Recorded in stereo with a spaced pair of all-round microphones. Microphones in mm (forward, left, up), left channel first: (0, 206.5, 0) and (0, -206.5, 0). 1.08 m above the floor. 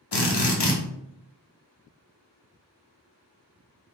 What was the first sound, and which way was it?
A drill, 75° left (ahead or behind).